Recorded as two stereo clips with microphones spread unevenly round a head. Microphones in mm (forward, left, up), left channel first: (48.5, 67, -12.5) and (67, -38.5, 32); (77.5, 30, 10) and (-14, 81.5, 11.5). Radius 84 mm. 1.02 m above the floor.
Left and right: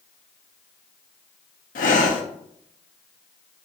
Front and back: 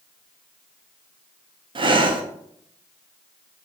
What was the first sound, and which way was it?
Breathing, 115° left.